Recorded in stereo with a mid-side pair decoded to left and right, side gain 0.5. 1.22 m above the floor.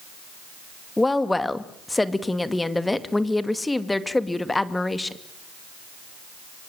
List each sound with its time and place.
1.0 s a woman speaking: 15° left, 2 m